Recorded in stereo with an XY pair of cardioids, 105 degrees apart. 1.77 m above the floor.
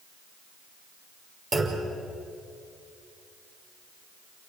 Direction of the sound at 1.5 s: 35° right.